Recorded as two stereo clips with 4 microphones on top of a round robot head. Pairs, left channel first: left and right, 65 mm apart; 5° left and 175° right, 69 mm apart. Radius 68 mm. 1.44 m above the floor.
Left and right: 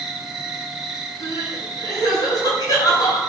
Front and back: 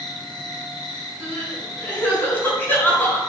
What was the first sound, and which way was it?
An insect, 5° right.